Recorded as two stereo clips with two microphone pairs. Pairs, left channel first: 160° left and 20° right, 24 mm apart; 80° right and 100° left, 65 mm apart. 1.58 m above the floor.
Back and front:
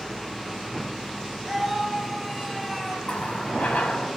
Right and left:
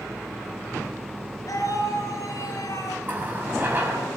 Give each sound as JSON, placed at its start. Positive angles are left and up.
{"t": 1.5, "sound": "a scream", "azimuth_deg": -115, "distance_m": 9.0}
{"t": 3.0, "sound": "a running tap", "azimuth_deg": 160, "distance_m": 6.5}